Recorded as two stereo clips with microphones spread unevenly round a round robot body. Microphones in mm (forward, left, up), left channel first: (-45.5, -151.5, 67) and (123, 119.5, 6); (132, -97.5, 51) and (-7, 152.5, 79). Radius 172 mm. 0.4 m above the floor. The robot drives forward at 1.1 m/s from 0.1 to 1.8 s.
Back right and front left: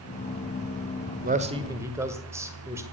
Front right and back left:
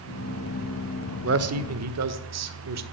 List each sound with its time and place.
1.2 s a man speaking: 95° left, 1.2 m; by 2.8 s 130° left, 1.4 m